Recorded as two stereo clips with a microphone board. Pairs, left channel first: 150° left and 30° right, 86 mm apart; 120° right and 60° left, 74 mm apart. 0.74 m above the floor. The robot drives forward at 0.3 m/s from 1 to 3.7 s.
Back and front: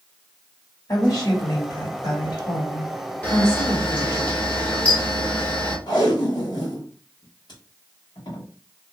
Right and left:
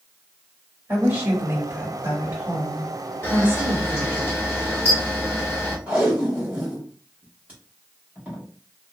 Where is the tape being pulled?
130° left, 1.6 m.